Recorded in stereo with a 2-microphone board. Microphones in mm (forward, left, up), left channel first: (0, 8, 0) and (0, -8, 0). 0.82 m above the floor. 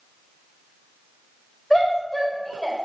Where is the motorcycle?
I don't hear a motorcycle.